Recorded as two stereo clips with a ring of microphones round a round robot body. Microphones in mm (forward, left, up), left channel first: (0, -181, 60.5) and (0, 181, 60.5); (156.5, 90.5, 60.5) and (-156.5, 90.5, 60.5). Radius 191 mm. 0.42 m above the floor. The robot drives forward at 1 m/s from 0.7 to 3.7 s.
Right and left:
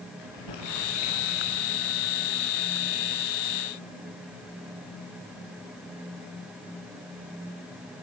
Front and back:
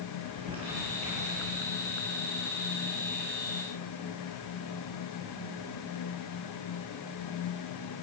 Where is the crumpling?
105° right, 8.5 m; by 1.6 s 110° right, 8.5 m.